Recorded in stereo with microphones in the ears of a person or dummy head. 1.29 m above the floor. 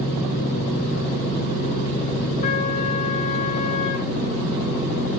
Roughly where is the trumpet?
Left.